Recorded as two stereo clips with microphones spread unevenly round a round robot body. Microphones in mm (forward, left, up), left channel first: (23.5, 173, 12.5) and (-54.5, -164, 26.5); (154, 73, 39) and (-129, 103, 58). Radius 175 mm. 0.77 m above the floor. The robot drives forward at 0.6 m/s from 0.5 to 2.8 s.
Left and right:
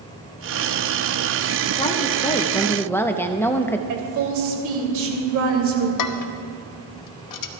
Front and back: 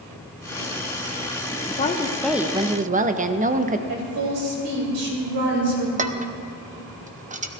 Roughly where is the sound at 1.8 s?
Ahead left.